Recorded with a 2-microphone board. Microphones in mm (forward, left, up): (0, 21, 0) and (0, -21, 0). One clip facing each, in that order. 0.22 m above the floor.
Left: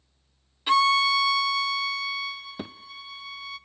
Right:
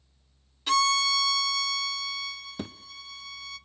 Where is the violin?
20° left (ahead or behind), 0.6 m.